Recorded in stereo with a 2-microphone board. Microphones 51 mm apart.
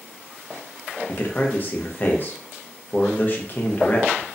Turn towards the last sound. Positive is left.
turn(degrees=40)  # may be behind; listen again after turning